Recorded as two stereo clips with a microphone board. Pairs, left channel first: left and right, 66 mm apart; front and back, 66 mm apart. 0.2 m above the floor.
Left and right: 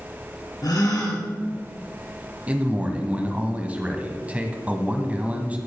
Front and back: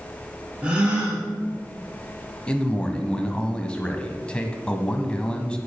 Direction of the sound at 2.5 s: 55° right.